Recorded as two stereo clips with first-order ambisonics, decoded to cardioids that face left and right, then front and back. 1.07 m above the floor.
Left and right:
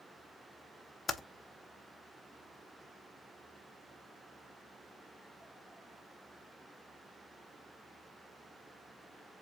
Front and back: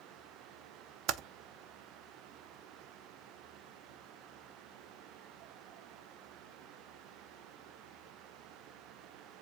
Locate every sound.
1.1 s typing on a keyboard: 160° left, 0.6 m